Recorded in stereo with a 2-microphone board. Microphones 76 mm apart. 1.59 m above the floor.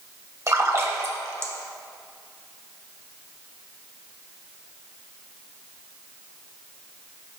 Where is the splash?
40° right (ahead or behind), 1.1 m.